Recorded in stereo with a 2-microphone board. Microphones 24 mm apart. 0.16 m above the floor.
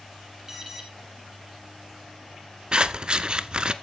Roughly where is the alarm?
Right.